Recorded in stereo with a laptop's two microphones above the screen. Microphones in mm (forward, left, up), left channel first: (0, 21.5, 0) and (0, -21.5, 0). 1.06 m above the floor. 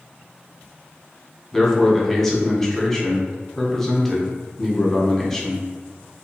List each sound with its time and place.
1.5 s a man speaking: 10° left (ahead or behind), 0.7 m